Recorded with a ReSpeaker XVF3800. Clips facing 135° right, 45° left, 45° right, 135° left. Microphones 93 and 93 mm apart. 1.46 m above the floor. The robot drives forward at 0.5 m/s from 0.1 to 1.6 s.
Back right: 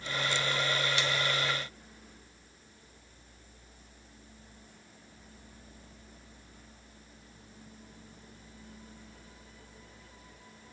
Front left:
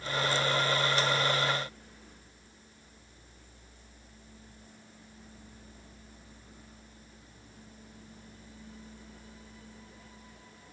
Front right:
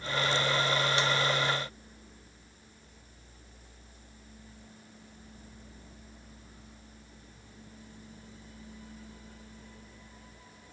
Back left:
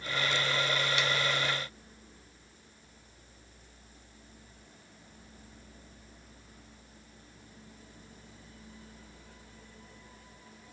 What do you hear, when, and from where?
Only background noise.